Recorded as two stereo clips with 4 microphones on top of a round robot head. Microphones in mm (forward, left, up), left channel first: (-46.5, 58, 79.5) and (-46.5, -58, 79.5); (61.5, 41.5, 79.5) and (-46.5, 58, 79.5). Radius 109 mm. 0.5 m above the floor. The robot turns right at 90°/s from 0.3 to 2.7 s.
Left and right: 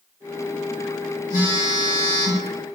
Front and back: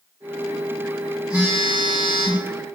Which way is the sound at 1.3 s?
90° left.